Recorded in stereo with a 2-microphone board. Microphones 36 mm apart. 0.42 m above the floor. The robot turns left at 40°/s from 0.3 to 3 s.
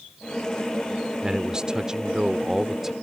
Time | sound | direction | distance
1.2 | a man speaking | 20° right (ahead or behind) | ?